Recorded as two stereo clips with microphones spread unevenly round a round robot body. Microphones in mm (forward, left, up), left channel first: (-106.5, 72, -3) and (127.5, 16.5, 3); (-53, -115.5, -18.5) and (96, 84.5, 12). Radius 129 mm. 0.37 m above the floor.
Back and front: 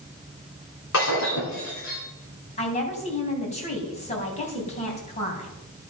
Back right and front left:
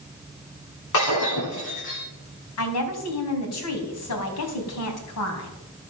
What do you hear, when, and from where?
0.9 s breaking glass: 150° right, 9 m
2.6 s a woman speaking: 130° right, 3 m